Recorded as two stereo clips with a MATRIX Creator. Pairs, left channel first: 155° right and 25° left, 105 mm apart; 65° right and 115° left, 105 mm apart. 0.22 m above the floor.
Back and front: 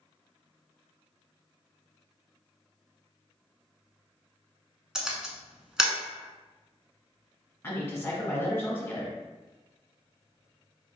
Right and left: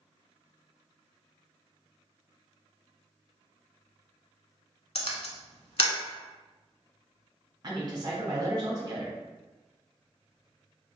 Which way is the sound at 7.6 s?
145° left.